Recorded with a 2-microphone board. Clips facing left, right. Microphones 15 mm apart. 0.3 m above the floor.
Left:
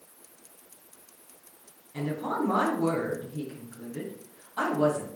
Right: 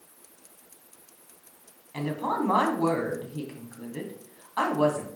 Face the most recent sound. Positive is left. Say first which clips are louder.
# right 2 dB
turn(degrees=-55)  # may be behind; listen again after turning